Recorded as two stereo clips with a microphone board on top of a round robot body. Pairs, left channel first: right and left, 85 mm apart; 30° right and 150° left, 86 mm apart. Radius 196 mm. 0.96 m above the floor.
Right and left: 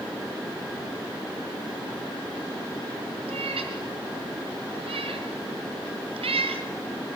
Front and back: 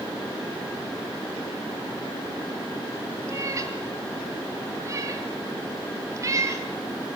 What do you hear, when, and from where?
3.3 s a cat meowing: 95° left, 1.5 m